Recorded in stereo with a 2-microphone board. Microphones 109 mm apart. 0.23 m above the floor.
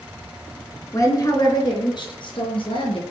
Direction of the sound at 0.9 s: 30° left (ahead or behind).